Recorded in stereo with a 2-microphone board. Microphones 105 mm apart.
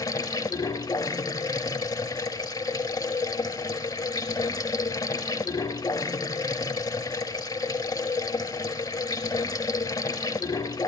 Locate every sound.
0.0 s running water: 35° left (ahead or behind), 0.7 m